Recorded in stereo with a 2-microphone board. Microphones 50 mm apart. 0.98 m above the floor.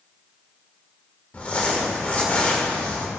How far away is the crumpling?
About 1.2 m.